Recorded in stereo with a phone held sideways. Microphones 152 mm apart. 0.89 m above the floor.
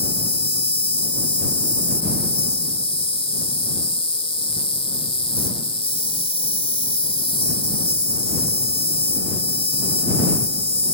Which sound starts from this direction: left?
An insect, at 0.0 s.